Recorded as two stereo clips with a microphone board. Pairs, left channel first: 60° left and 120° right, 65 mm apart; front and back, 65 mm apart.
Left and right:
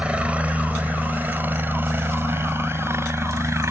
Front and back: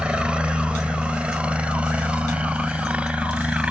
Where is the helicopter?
140° right; by 3.7 s 115° right.